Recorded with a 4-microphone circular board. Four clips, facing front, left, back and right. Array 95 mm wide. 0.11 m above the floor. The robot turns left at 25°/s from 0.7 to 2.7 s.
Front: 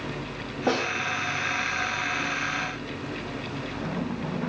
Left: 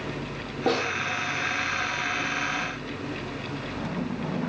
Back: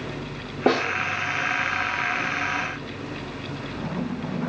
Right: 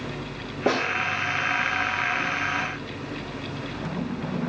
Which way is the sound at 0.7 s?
175° right.